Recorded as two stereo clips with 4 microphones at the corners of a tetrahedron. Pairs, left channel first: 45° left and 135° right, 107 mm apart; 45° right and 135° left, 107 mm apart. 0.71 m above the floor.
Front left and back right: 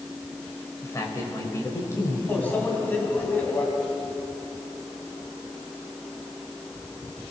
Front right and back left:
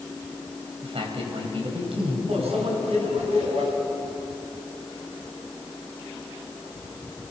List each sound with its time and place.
0.8 s a man speaking: 110° left, 4 m
2.3 s a microwave: 120° left, 4 m